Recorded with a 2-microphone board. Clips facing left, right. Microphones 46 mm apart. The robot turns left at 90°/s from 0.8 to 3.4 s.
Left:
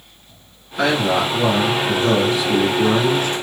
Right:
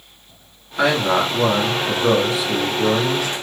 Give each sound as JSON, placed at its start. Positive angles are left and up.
{"t": 0.8, "sound": "a man speaking", "azimuth_deg": -15, "distance_m": 1.6}